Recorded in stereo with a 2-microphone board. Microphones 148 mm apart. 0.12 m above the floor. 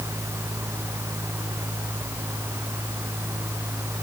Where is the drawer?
No drawer in this recording.